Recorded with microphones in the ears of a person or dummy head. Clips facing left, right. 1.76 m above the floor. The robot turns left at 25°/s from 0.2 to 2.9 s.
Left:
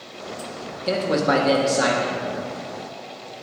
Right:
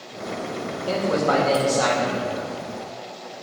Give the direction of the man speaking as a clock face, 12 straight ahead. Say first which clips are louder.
Left 1 dB; 11 o'clock.